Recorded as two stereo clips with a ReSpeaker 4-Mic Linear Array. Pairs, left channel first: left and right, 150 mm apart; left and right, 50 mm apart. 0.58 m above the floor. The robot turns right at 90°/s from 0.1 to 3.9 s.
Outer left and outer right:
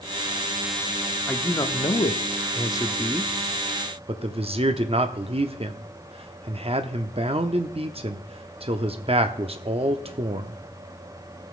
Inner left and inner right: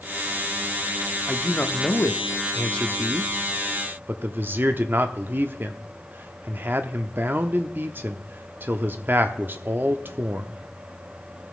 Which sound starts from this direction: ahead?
A man speaking, at 1.3 s.